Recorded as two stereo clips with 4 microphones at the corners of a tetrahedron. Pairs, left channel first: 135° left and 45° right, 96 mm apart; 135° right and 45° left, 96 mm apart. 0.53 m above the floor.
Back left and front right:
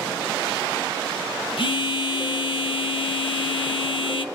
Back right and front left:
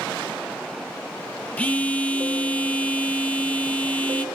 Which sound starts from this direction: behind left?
A phone buzzing, at 1.6 s.